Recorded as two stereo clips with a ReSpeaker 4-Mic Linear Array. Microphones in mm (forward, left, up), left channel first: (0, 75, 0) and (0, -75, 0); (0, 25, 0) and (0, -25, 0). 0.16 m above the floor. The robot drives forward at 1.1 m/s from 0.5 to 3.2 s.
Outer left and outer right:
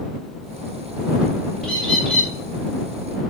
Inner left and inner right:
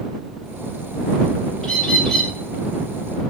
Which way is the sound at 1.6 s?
5° left (ahead or behind).